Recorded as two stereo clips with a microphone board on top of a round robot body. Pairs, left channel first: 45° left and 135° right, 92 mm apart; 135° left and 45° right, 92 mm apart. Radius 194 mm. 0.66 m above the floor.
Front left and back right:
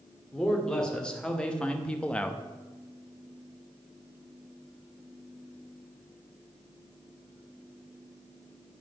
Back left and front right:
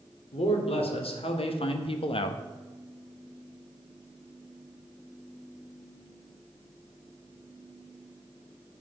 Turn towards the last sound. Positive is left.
turn(degrees=120)